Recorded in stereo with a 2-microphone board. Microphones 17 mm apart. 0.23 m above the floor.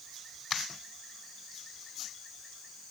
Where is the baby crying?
No baby crying in this recording.